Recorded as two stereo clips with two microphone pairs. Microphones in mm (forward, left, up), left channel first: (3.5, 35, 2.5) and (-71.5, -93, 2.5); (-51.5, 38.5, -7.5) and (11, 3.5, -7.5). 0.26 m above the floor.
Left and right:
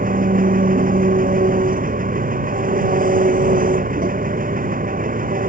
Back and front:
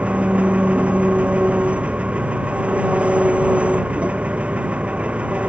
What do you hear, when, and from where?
0.0 s an engine running: 100° right